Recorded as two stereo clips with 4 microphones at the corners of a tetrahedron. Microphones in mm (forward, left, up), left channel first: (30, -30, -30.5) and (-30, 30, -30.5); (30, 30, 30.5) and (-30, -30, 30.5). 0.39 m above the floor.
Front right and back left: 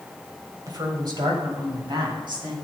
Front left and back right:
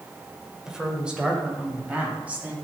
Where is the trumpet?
No trumpet in this recording.